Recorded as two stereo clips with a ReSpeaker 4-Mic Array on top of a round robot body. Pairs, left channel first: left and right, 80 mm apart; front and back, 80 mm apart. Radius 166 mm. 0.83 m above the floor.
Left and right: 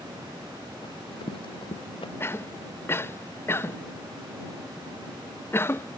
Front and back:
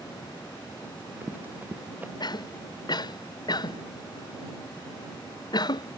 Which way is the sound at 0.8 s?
110° left.